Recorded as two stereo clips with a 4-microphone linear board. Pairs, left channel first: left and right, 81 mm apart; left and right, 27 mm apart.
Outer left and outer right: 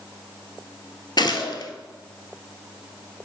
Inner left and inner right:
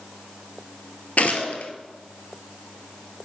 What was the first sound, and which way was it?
A gunshot, 65° left (ahead or behind).